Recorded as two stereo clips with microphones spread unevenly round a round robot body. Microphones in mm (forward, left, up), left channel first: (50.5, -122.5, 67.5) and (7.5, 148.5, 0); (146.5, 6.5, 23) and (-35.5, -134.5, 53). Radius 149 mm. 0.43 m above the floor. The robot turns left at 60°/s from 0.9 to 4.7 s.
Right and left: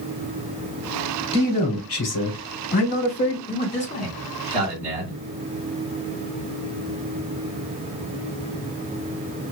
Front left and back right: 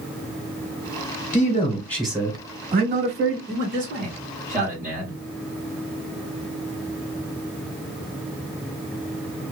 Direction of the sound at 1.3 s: 5° right.